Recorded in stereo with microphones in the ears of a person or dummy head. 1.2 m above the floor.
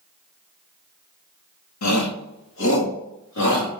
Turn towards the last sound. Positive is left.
turn(degrees=55)  # may be behind; listen again after turning